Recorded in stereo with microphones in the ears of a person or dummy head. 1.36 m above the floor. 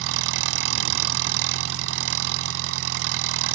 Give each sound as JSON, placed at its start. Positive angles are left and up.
{"t": 0.0, "sound": "an engine running", "side_deg": -70}